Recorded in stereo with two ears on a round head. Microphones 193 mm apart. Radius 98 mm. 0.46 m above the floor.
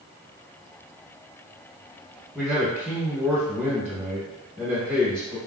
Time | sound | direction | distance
2.4 | a man speaking | 10° right (ahead or behind) | 1.0 m